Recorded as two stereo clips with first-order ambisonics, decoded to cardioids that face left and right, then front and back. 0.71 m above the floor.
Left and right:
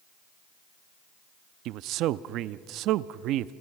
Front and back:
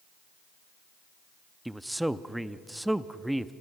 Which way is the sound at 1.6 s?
95° right.